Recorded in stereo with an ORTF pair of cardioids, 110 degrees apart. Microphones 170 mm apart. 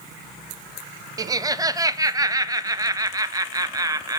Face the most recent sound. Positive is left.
turn(degrees=-20)